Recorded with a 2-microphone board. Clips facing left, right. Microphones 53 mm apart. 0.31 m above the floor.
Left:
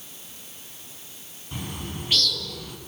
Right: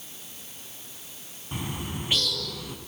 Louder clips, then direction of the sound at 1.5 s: Right 1 dB; 20° right (ahead or behind).